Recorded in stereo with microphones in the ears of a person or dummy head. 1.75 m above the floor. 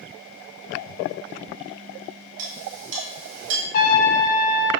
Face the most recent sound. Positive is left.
turn(degrees=50)  # may be behind; listen again after turning